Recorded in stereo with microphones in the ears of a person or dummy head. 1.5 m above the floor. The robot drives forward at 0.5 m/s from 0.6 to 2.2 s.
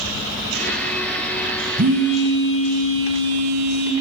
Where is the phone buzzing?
50° right (ahead or behind), 0.6 m; by 3.9 s 40° right (ahead or behind), 0.7 m.